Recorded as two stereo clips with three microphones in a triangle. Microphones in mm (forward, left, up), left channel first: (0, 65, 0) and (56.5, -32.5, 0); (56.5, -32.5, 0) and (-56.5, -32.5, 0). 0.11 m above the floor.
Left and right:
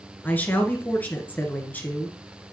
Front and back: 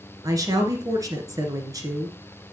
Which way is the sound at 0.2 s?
Straight behind.